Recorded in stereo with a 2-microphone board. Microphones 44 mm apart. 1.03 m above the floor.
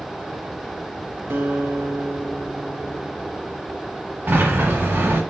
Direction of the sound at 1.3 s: 60° right (ahead or behind).